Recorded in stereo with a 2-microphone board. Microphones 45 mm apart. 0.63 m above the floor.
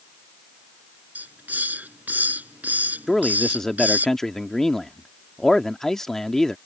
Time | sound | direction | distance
1.1 | a hiss | 40° right (ahead or behind) | ?
3.1 | a man speaking | 10° left (ahead or behind) | ?